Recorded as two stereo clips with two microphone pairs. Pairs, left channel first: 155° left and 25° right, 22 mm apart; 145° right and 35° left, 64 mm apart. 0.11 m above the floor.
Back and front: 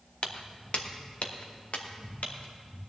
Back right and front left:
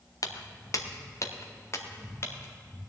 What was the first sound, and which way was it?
Footsteps, 170° right.